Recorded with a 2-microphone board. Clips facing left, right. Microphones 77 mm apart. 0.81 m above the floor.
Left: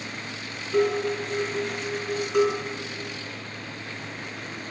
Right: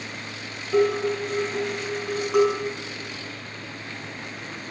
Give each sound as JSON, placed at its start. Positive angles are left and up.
{"t": 0.7, "sound": "dishes clattering", "side_deg": -80, "distance_m": 5.0}